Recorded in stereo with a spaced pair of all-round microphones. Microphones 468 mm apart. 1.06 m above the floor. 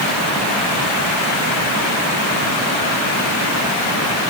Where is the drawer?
I don't hear a drawer.